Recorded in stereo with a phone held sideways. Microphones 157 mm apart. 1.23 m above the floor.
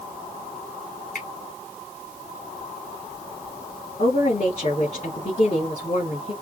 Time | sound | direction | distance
1.1 | a finger snap | 75° left (ahead or behind) | 2.5 m
4.0 | a woman speaking | 50° left (ahead or behind) | 3.5 m